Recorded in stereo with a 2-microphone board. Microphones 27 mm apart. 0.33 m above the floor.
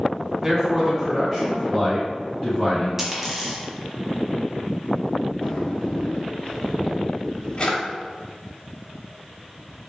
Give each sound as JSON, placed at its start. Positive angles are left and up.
{"t": 0.4, "sound": "a man speaking", "side_deg": -15, "distance_m": 1.1}
{"t": 3.0, "sound": "a dropped coin", "side_deg": -15, "distance_m": 1.0}
{"t": 5.4, "sound": "a drawer", "side_deg": 45, "distance_m": 0.9}